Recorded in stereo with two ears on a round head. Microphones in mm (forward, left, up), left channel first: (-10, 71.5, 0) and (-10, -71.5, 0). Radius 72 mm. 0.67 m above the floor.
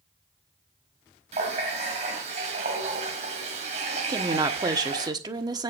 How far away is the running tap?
About 2.5 m.